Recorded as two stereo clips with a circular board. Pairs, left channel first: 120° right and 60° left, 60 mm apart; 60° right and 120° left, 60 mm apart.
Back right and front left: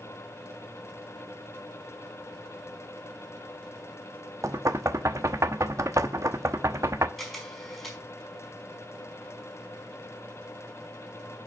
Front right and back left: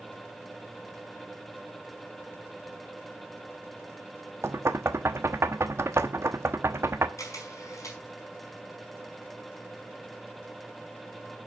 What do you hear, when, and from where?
4.4 s knocking: 85° left, 1.0 m
7.2 s a camera shutter: 30° right, 5 m